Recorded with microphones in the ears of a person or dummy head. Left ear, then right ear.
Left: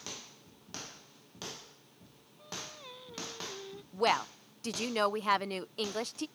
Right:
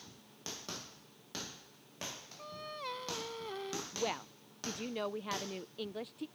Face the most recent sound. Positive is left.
turn(degrees=50)  # may be behind; listen again after turning